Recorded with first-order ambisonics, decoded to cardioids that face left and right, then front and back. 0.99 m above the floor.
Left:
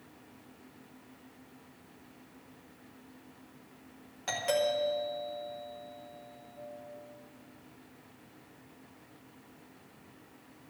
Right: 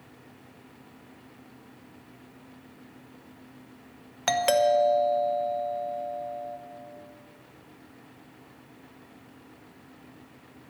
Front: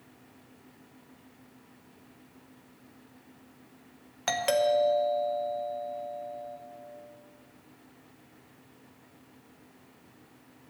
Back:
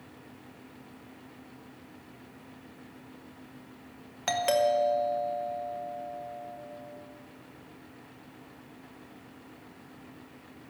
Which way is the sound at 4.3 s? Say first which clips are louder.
Right 8 dB, even; 85° right.